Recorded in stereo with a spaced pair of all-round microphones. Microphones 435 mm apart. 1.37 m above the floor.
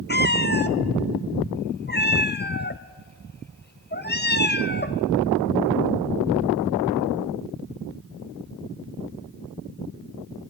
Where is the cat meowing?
25° left (ahead or behind), 0.6 m.